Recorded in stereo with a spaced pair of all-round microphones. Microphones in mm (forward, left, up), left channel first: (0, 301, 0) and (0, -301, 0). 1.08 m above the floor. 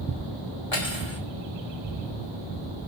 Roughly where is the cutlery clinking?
Left.